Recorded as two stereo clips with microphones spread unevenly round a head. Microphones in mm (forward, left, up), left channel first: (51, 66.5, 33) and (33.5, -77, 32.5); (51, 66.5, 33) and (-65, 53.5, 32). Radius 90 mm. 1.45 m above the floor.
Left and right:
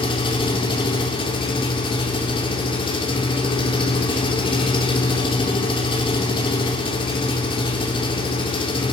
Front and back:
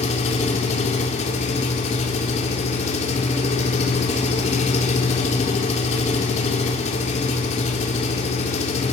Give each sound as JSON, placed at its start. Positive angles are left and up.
{"t": 0.0, "sound": "an engine running", "azimuth_deg": 30, "distance_m": 3.5}